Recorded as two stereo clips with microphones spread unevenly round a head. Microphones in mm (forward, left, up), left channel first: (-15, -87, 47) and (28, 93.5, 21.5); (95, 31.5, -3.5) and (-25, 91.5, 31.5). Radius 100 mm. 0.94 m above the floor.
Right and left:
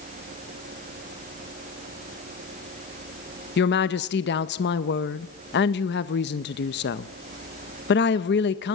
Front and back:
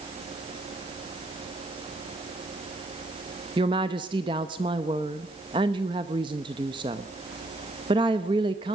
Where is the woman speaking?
135° right, 0.7 m.